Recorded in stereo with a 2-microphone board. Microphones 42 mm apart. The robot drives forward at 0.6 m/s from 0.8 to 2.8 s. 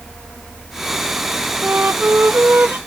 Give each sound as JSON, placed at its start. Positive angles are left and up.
{"t": 1.6, "sound": "a flute", "side_deg": -70}